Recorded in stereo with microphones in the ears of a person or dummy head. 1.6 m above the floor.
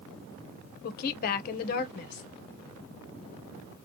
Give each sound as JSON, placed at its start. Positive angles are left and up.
{"t": 0.8, "sound": "a woman speaking", "side_deg": 50, "distance_m": 0.7}